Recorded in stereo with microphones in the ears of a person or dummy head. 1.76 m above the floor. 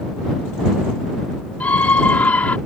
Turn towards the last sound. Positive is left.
turn(degrees=10)  # may be behind; listen again after turning